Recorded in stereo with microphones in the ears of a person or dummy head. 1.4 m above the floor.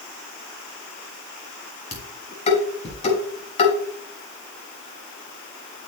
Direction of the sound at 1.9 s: 40° left (ahead or behind).